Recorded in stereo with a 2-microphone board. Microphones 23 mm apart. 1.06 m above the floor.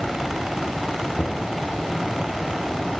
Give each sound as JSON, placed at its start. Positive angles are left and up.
{"t": 1.2, "sound": "knocking", "side_deg": 75, "distance_m": 8.0}